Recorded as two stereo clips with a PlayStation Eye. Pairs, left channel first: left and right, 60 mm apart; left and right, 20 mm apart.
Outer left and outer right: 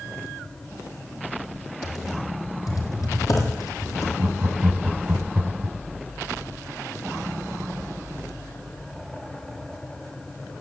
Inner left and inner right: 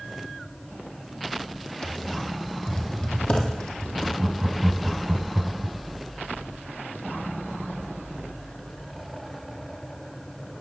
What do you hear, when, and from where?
1.8 s typing on a keyboard: 70° left (ahead or behind), 3.5 m
4.2 s laughter: 20° right (ahead or behind), 1.2 m